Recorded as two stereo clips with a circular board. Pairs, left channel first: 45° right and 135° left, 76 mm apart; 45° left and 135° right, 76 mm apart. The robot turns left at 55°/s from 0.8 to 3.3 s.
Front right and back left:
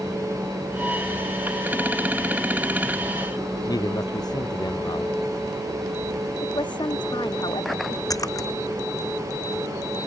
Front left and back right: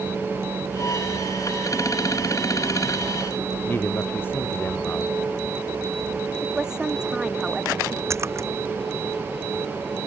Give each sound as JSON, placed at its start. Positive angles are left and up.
{"t": 3.7, "sound": "a man speaking", "azimuth_deg": -20}
{"t": 6.4, "sound": "a woman speaking", "azimuth_deg": -55}
{"t": 8.1, "sound": "a splash", "azimuth_deg": -85}